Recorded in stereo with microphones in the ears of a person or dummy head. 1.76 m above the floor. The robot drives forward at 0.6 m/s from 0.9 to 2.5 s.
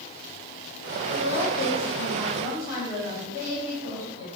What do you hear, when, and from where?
1.1 s a woman speaking: 70° left (ahead or behind), 3.5 m; by 4.3 s 55° left (ahead or behind), 4 m